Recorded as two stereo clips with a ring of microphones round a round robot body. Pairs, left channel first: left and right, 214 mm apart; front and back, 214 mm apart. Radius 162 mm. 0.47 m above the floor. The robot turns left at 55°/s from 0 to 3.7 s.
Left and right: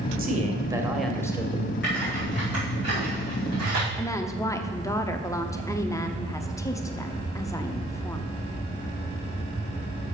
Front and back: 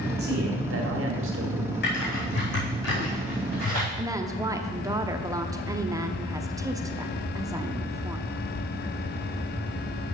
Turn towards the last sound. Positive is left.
turn(degrees=135)